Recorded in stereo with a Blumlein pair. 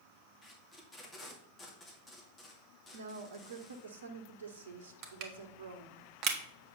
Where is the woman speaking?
65° right, 1.2 m.